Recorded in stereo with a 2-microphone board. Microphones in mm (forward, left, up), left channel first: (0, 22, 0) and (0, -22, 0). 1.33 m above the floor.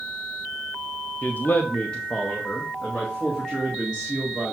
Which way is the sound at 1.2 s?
40° left (ahead or behind).